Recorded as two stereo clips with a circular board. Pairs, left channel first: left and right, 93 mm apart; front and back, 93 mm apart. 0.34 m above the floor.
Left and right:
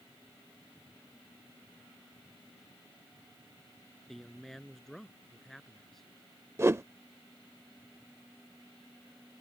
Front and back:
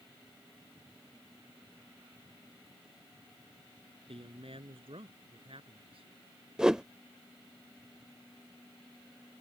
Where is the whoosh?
105° right.